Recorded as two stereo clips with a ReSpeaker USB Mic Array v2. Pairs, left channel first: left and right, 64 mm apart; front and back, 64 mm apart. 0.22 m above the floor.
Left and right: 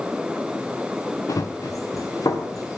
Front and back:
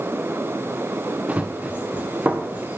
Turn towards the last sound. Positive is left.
turn(degrees=115)